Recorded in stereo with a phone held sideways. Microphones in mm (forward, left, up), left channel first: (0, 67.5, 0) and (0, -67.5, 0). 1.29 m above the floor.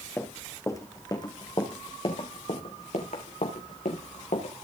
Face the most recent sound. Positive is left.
turn(degrees=75)  # may be behind; listen again after turning